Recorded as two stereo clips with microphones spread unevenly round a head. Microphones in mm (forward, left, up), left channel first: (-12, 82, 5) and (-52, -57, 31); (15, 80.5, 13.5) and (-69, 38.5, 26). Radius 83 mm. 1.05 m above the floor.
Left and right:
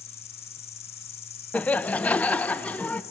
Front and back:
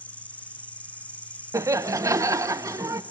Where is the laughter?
150° left, 0.6 m.